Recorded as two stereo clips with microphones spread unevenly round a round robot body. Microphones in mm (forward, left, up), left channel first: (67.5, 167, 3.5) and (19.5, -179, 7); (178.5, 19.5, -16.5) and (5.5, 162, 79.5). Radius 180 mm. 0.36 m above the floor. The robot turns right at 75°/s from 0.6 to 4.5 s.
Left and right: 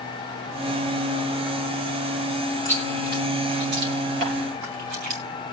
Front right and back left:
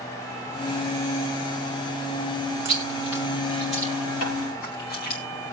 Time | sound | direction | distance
2.6 | chewing | 160° left | 3 m
4.2 | tapping | 60° right | 5.5 m